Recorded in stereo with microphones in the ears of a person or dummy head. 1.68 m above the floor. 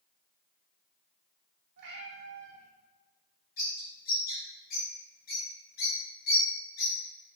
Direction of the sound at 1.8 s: 60° right (ahead or behind).